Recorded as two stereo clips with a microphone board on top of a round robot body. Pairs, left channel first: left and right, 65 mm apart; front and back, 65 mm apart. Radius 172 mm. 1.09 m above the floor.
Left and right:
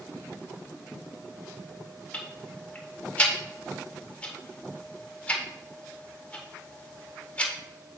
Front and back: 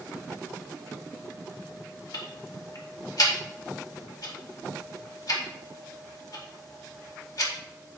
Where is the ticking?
20° left, 1.8 m.